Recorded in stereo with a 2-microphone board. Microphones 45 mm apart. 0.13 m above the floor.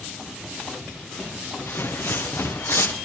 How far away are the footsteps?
About 2.5 m.